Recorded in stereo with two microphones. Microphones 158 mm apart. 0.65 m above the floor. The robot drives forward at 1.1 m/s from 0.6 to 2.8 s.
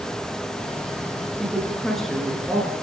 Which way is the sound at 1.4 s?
Centre (ahead or behind).